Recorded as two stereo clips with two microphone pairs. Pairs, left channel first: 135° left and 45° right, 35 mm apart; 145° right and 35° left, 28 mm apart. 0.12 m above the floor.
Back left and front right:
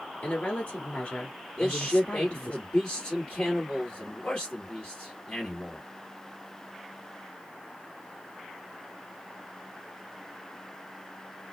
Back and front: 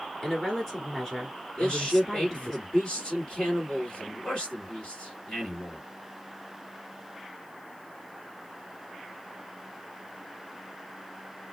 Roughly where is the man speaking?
Behind.